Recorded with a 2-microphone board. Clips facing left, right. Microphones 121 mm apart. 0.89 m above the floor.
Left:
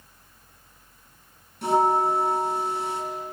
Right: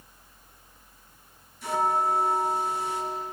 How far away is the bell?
About 4.5 m.